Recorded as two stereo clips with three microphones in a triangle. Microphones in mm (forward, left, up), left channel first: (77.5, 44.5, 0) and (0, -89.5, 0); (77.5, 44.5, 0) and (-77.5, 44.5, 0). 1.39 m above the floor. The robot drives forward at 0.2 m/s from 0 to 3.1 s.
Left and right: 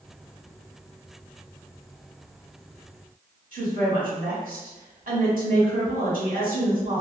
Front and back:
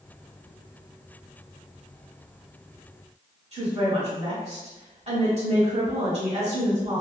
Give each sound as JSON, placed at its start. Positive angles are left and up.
{"t": 3.5, "sound": "a woman speaking", "azimuth_deg": -140, "distance_m": 1.3}